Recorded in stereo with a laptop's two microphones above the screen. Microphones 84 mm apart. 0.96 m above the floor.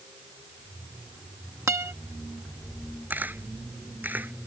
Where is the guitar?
35° right (ahead or behind).